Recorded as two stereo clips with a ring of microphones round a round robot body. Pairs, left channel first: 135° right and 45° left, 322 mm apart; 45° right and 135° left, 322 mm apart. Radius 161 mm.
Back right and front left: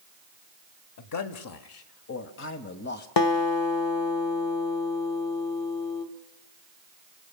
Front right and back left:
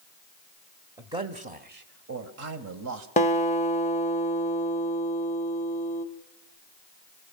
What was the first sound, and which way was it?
A man speaking, 145° right.